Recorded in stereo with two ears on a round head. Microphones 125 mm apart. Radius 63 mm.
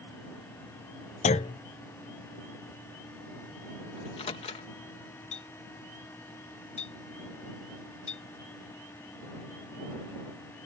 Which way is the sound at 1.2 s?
50° left (ahead or behind).